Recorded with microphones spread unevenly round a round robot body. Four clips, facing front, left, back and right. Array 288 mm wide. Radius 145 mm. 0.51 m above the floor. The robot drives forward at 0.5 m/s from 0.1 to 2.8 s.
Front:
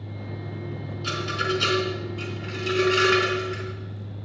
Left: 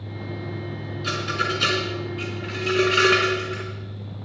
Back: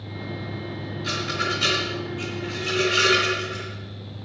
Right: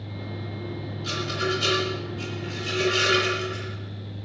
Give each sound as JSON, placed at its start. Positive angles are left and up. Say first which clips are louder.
{"t": 1.0, "sound": "a rattle", "louder": "left 2 dB, front 1 dB", "azimuth_deg": 55, "distance_m": 4.0}